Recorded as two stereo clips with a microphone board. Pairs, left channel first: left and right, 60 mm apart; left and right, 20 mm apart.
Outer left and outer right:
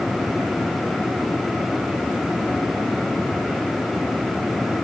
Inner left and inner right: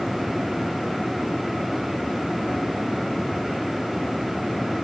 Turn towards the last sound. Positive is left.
No sound to turn to.